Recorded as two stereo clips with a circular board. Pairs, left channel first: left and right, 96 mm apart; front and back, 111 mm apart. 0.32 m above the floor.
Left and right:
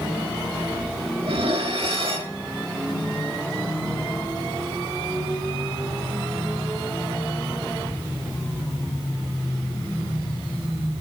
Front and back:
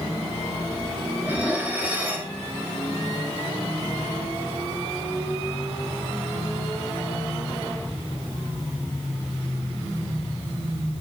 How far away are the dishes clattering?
About 4 m.